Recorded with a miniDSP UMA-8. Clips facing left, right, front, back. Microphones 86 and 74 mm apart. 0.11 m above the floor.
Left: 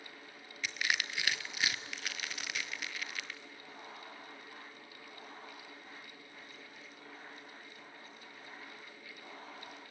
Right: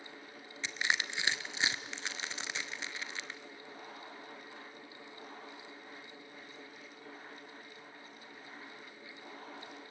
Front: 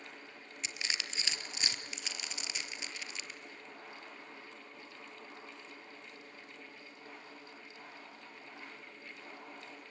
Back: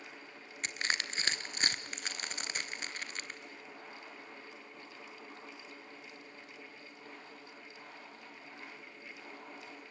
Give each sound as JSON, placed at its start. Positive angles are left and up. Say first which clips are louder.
{"t": 0.6, "sound": "crushing", "louder": "right 1 dB, back 5 dB", "azimuth_deg": -150, "distance_m": 1.1}